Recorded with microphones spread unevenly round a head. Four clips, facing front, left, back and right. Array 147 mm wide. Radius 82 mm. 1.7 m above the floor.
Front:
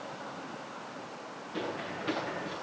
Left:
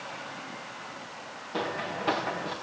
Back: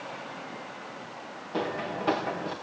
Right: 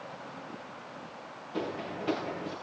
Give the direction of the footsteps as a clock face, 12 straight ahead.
7 o'clock.